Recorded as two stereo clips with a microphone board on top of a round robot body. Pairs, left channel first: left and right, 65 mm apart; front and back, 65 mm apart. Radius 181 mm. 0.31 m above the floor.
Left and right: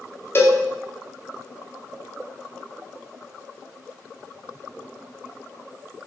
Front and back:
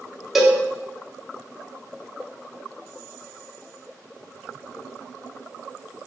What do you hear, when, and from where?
0.3 s a cowbell: 100° left, 0.7 m